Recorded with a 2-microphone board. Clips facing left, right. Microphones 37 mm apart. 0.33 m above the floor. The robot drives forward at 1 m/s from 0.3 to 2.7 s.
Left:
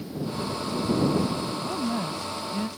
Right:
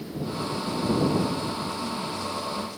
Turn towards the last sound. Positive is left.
turn(degrees=55)  # may be behind; listen again after turning